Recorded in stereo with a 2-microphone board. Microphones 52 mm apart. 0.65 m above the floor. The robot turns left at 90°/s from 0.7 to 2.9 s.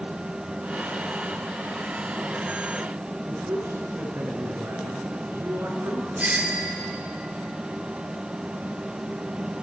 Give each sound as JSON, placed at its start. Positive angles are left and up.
{"t": 3.3, "sound": "a man speaking", "side_deg": -70, "distance_m": 7.5}
{"t": 6.2, "sound": "a doorbell", "side_deg": -30, "distance_m": 2.5}